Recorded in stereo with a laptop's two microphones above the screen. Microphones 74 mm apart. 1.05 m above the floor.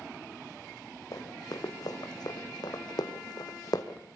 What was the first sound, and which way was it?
Running footsteps, 55° left (ahead or behind).